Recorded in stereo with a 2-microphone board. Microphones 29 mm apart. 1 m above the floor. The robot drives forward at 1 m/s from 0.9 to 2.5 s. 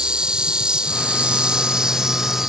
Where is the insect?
35° right (ahead or behind); by 2.5 s 15° right (ahead or behind).